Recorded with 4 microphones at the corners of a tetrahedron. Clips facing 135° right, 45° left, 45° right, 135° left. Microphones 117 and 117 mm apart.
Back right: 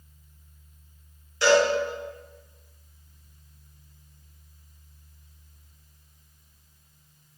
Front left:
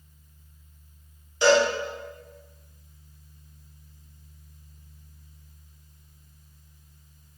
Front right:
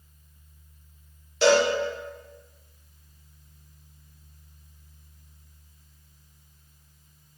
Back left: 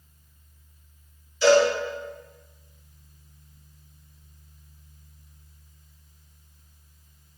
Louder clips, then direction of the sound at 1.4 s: Even, back left 2 dB; 25° right.